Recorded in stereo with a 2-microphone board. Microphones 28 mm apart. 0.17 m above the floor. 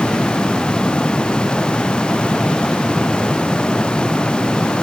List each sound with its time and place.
Only background noise.